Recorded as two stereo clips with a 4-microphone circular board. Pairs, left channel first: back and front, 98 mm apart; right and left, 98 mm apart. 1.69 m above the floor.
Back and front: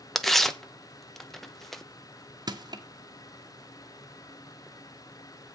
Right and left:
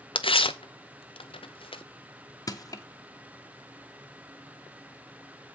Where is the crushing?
40° right, 1.0 m.